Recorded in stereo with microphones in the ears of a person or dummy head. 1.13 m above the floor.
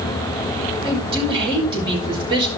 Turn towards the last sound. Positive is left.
turn(degrees=-30)  # may be behind; listen again after turning